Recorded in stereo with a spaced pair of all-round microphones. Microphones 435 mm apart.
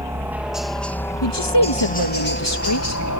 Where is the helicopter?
5° right (ahead or behind); by 3.2 s 40° left (ahead or behind).